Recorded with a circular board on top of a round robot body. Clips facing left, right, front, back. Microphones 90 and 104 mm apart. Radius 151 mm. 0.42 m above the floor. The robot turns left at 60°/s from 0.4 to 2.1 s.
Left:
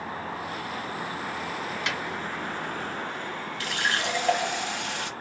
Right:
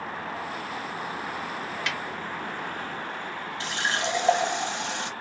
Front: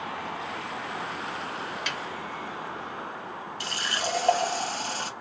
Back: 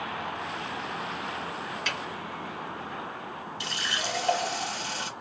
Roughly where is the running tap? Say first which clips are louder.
Even, front 3 dB; ahead right.